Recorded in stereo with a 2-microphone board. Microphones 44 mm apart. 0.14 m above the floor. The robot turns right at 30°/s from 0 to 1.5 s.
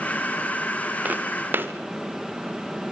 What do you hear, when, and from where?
1.1 s footsteps: 35° right (ahead or behind), 2.5 m; by 1.7 s 50° right (ahead or behind), 2.5 m